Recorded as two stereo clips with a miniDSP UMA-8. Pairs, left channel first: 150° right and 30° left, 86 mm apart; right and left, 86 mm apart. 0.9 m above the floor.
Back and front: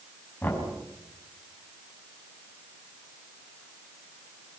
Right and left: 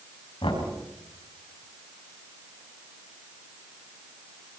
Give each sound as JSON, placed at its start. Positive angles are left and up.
{"t": 0.4, "sound": "knocking", "azimuth_deg": -85, "distance_m": 6.0}